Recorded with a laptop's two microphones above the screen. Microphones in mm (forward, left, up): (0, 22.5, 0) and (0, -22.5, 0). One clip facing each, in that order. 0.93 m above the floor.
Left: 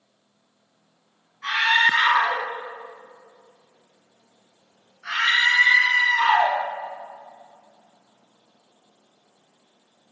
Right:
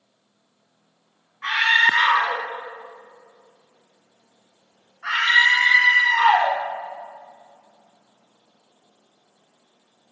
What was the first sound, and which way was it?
A scream, 30° right (ahead or behind).